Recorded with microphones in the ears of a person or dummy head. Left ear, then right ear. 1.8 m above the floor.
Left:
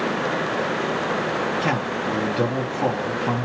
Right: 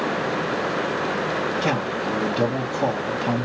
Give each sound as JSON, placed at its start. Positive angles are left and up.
{"t": 1.6, "sound": "a man speaking", "side_deg": 5, "distance_m": 0.7}